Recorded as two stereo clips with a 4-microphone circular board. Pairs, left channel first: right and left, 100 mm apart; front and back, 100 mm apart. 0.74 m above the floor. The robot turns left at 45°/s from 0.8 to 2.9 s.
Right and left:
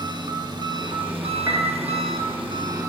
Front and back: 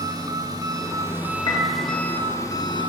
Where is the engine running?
130° left, 0.9 m; by 2.9 s 35° left, 0.9 m.